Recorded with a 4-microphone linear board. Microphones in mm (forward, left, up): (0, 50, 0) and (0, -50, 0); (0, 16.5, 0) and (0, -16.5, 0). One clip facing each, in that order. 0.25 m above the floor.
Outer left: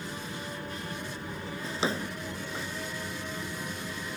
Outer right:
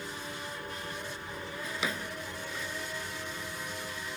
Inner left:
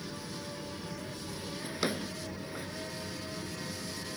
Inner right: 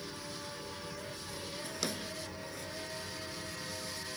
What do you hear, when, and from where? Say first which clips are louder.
0.0 s an aircraft: outer left 2 dB, inner left 2 dB; 45° left (ahead or behind)
1.6 s a drawer: outer left 5 dB, inner left 6 dB; 30° left (ahead or behind)